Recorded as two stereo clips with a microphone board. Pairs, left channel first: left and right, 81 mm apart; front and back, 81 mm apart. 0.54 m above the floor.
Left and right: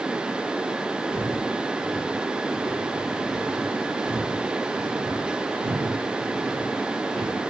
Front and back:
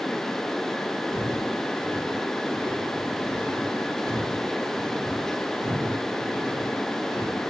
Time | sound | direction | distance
1.1 | footsteps | 115° right | 6 m